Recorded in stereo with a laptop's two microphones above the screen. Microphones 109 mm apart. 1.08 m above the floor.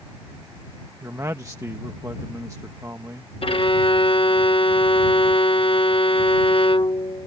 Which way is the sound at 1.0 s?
30° right (ahead or behind).